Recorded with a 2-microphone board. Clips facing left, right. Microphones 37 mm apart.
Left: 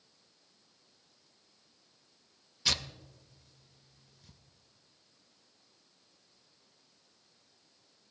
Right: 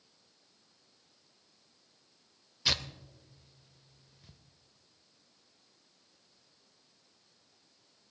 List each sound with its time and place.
2.6 s tearing paper: 15° right (ahead or behind), 0.7 m